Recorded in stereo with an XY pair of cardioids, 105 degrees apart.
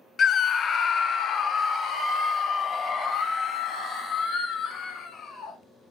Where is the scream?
45° left, 0.5 m; by 5.6 s 55° left, 3.5 m.